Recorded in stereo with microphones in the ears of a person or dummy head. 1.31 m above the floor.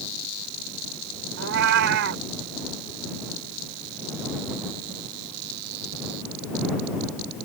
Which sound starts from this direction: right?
A cat meowing, at 1.4 s.